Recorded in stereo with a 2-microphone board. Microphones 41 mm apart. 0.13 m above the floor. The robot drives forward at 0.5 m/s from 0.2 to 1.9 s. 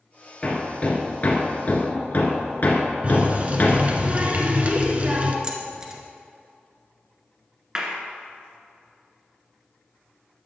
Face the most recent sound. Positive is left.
turn(degrees=-20)  # may be behind; listen again after turning